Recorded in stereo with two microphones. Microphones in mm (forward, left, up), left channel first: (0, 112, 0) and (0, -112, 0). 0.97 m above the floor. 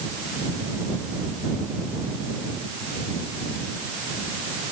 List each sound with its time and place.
Only background noise.